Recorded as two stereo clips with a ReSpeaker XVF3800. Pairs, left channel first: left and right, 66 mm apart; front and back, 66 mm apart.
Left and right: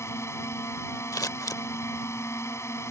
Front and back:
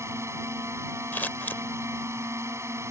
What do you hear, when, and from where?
0.0 s a drone: 135° left
1.1 s scissors: 55° left